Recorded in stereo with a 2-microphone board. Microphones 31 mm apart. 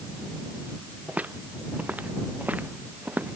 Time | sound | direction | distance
1.1 | footsteps | 65° right (ahead or behind) | ?